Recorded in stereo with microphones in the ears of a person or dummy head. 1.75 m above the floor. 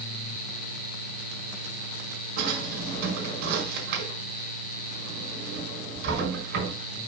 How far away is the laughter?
No laughter in this recording.